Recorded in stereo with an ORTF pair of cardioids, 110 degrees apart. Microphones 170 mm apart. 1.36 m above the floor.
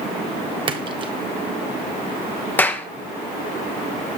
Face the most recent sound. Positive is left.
turn(degrees=10)